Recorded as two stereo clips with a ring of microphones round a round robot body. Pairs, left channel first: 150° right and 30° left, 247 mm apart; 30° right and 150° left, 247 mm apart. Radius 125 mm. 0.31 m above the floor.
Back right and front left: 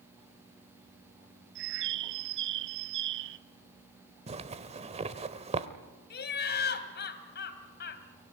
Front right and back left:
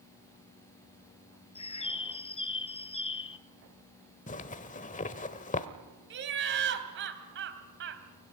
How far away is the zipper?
About 1.0 m.